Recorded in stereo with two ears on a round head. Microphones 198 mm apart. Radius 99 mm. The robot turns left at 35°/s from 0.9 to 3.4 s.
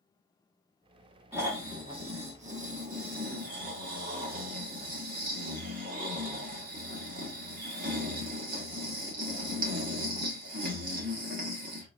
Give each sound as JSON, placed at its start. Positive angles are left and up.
{"t": 1.3, "sound": "snoring", "azimuth_deg": -15, "distance_m": 1.3}